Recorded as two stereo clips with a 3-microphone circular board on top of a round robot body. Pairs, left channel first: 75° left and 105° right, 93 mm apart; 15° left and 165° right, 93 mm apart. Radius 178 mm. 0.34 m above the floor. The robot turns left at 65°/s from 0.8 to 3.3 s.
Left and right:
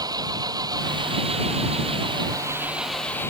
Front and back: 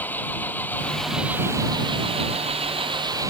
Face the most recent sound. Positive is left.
turn(degrees=140)